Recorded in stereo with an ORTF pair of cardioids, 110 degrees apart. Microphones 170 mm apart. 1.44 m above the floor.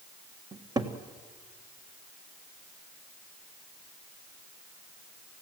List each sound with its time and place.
0.5 s a cupboard door: 25° right, 1.6 m